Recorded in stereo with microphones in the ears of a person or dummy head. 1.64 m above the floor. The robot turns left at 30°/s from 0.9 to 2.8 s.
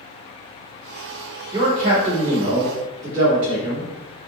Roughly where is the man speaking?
Ahead right.